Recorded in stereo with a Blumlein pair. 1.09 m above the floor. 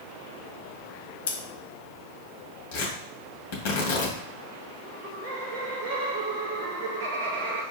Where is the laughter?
40° right, 0.9 m.